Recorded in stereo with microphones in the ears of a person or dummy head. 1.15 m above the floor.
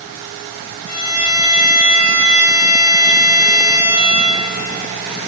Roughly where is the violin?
Left.